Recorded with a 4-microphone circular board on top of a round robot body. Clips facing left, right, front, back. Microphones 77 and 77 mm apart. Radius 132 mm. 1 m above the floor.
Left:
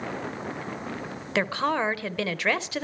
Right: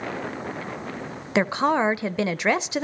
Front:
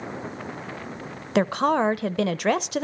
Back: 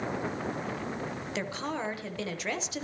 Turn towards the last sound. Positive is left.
turn(degrees=-20)